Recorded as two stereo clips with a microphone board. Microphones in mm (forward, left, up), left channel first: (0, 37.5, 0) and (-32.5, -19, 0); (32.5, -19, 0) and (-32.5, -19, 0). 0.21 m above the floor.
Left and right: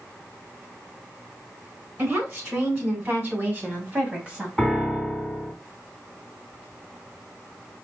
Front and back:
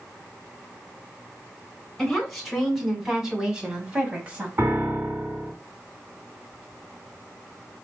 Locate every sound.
2.0 s a woman speaking: 85° right, 2 m; by 4.5 s 170° right, 1.5 m
4.6 s a piano: 145° left, 1.7 m